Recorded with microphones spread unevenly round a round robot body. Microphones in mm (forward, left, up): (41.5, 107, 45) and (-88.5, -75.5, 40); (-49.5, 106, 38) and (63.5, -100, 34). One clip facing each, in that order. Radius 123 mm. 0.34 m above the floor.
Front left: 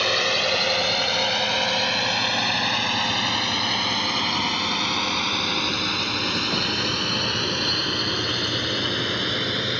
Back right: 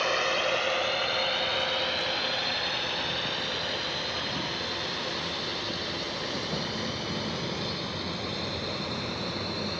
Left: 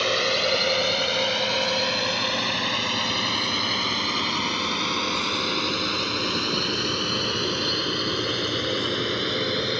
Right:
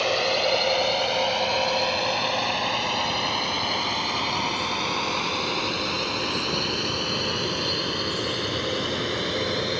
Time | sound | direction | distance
0.0 | a drone | 60° left | ?